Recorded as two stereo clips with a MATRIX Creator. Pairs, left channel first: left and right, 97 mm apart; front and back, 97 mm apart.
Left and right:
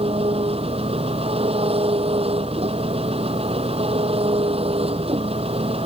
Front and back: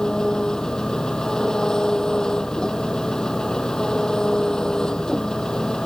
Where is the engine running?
85° right.